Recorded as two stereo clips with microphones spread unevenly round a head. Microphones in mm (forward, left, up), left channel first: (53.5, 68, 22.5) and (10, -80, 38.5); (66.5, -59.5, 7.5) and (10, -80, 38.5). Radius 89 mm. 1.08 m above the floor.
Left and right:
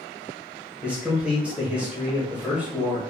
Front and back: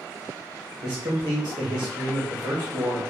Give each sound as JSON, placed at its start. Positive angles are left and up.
{"t": 0.8, "sound": "a man speaking", "azimuth_deg": 165, "distance_m": 0.8}